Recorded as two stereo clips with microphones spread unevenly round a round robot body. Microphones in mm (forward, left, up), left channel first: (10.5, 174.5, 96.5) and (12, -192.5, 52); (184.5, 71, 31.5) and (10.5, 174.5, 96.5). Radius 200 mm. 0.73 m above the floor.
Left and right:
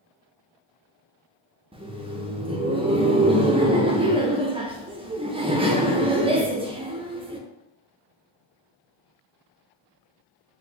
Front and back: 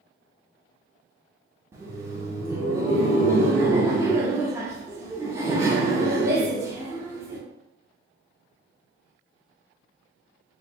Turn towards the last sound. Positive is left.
turn(degrees=-105)